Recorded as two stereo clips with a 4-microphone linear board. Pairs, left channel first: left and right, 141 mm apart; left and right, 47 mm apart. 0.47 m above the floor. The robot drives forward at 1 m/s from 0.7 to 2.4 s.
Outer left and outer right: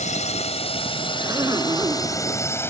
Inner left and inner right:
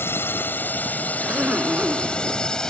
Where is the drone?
50° left (ahead or behind); by 2.7 s 15° left (ahead or behind).